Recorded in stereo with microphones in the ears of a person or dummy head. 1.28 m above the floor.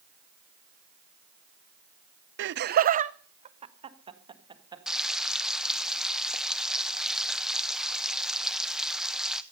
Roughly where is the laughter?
Right.